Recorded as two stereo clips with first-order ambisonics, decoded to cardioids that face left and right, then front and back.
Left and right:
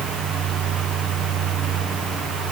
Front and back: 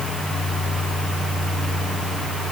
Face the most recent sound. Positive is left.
No sound to turn to.